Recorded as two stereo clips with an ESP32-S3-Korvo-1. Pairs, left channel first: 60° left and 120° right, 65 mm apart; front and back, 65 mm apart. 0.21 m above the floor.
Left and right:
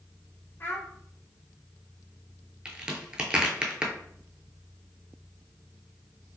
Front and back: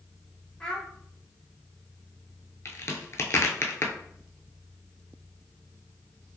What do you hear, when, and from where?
0.6 s a child speaking: 65° left, 0.7 m
2.6 s a crack: 45° right, 0.5 m